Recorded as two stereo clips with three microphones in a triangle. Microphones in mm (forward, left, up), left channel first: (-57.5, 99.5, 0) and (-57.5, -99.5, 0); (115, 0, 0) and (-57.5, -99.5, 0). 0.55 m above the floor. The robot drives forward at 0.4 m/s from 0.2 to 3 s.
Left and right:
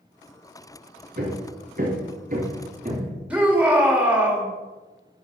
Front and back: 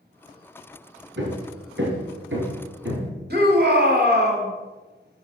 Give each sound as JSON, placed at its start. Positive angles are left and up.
{"t": 1.2, "sound": "hammering", "azimuth_deg": -130, "distance_m": 2.0}
{"t": 3.3, "sound": "a shout", "azimuth_deg": -175, "distance_m": 2.5}